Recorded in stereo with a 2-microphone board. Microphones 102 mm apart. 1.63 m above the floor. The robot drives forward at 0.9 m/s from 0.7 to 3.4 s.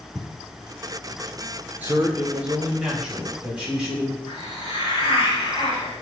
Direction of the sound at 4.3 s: 55° left (ahead or behind).